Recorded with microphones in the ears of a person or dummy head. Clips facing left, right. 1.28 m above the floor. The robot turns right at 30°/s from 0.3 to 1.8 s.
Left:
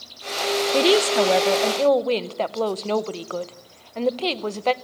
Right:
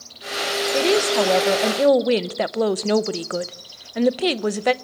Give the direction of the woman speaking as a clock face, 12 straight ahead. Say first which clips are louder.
Even; 7 o'clock.